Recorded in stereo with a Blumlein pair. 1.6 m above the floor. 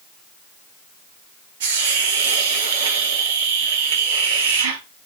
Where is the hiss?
55° right, 1.1 m.